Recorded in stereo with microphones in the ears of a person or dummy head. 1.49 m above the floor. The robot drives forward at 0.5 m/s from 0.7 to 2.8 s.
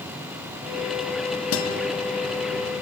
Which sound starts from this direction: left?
A guitar, at 1.5 s.